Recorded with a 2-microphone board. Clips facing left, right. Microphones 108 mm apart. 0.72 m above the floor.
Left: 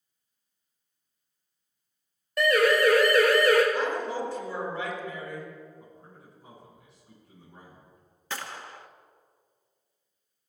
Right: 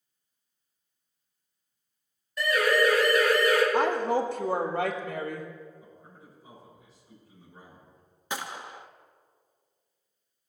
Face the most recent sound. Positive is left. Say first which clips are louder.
# right 2 dB
turn(degrees=-15)  # may be behind; listen again after turning